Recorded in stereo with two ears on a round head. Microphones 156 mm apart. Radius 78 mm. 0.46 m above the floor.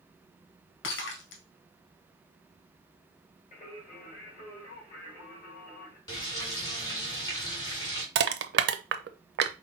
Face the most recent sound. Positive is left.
turn(degrees=-65)  # may be behind; listen again after turning